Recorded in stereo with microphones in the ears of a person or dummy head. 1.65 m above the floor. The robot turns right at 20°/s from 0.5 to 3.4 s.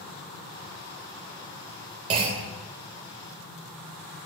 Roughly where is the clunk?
Right.